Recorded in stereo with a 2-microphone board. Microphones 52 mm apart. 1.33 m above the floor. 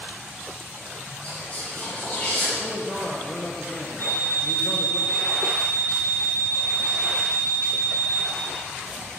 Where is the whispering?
35° left (ahead or behind), 1.4 m.